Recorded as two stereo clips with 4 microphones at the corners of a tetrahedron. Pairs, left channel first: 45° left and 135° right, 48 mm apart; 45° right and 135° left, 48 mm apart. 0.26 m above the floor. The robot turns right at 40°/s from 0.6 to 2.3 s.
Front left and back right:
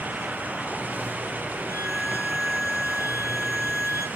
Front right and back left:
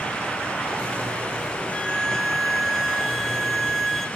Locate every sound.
1.7 s a violin: 20° left, 1.0 m; by 4.1 s 45° left, 1.0 m